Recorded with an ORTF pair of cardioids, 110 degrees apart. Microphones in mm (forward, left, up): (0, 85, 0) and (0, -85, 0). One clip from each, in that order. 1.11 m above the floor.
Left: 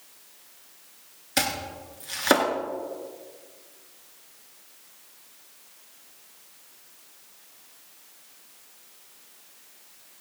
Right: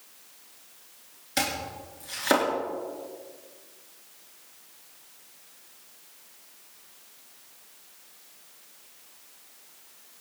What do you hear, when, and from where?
1.4 s chopping: 20° left, 3 m